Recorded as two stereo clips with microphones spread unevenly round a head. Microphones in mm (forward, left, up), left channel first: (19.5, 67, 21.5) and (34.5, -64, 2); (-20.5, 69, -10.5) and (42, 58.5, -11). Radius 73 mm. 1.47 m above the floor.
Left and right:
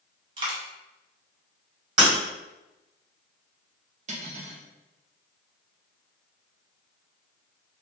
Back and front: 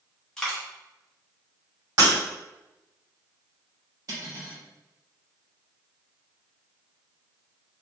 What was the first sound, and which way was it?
A dropped coin, 120° right.